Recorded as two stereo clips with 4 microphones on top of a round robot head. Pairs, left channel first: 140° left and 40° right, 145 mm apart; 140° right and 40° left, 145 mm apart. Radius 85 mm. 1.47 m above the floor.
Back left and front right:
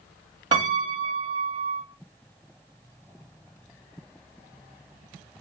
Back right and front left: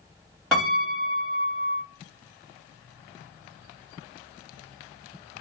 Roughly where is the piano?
Ahead right.